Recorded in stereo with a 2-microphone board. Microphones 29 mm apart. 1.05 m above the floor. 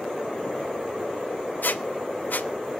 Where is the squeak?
80° left, 0.7 m.